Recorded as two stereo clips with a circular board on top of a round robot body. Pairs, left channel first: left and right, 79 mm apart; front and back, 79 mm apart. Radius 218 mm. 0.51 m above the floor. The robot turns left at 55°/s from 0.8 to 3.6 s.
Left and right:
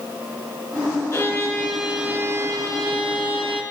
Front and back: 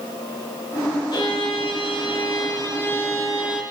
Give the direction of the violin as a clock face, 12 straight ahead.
11 o'clock.